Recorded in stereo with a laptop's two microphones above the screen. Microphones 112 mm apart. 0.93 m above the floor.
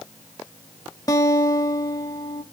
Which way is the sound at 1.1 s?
30° left (ahead or behind).